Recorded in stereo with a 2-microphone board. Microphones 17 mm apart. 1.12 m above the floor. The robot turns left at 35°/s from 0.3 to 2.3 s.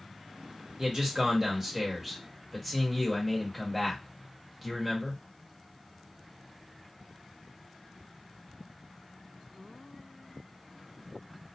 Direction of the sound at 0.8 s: 130° right.